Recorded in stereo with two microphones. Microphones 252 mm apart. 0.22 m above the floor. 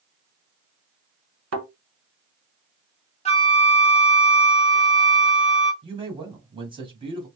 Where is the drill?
No drill in this recording.